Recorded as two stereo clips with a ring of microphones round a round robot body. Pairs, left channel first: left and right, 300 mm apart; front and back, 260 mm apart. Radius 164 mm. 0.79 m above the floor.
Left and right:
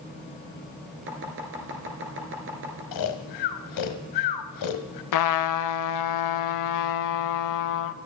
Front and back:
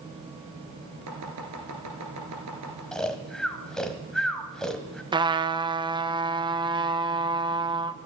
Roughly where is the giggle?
I don't hear a giggle.